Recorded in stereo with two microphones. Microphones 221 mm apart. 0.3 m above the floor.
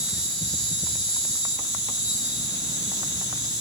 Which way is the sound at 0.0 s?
55° right (ahead or behind).